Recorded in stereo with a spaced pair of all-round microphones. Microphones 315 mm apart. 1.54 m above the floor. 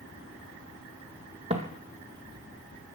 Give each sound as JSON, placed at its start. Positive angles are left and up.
{"t": 1.5, "sound": "footsteps", "side_deg": -20, "distance_m": 2.5}